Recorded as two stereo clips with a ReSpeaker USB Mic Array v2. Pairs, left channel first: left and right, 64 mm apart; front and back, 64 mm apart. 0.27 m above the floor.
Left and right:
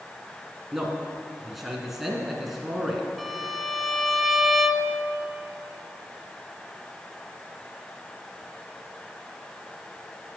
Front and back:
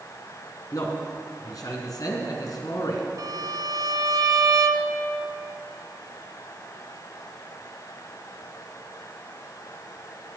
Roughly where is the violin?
Behind.